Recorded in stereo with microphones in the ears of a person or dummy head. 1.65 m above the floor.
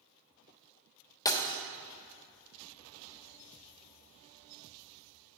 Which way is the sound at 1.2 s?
20° left (ahead or behind).